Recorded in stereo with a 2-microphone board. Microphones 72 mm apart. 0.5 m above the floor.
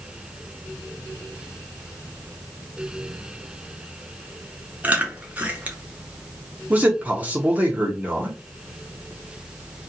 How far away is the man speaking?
About 0.7 m.